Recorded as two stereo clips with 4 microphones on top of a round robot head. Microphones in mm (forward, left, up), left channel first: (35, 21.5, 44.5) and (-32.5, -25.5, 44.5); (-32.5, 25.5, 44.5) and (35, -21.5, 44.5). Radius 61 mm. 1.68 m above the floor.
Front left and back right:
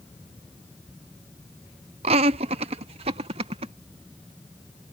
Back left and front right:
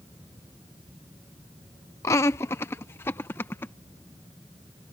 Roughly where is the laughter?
Behind right.